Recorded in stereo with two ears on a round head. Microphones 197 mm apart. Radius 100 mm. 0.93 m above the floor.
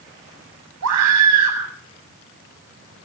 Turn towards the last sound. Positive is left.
turn(degrees=-80)